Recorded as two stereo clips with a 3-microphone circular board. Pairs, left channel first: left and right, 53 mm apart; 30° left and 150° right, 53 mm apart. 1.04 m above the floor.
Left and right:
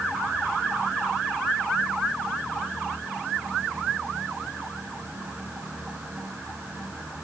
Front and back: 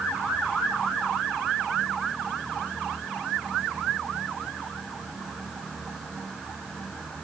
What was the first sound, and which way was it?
Only background noise.